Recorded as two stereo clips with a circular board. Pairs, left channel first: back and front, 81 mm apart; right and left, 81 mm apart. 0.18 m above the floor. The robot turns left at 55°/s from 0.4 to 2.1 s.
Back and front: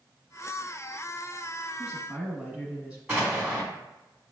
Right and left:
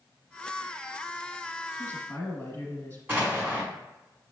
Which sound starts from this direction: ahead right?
A woman speaking, at 1.8 s.